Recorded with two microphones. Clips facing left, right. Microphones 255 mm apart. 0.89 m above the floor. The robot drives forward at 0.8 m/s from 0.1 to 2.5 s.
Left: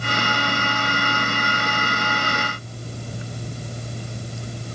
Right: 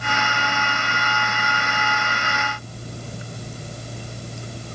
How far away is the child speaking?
I don't hear a child speaking.